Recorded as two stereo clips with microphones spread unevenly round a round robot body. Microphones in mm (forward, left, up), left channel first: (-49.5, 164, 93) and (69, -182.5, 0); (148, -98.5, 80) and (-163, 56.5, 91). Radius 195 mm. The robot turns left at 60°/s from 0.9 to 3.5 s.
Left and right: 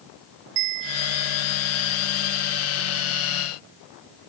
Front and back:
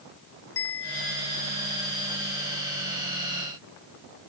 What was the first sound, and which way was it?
A bell, 80° right.